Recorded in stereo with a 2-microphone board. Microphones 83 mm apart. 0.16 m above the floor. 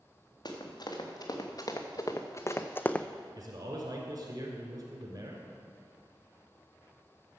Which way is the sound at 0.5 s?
55° left (ahead or behind).